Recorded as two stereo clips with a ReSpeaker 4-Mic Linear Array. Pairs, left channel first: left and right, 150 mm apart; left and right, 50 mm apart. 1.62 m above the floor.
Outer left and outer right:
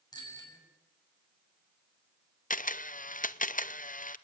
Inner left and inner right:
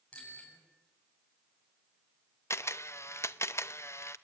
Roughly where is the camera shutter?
Left.